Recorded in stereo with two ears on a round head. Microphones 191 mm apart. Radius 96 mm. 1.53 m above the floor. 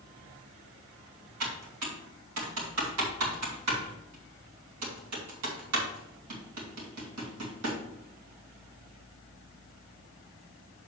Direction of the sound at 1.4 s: 85° right.